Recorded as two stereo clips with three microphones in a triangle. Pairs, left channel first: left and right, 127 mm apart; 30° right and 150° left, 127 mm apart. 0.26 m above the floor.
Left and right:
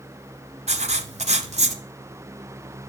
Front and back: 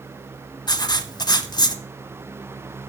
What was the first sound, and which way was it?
Writing, 80° right.